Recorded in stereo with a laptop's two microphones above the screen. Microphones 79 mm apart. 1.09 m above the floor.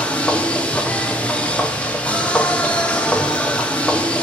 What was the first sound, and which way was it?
A machine running, 15° left (ahead or behind).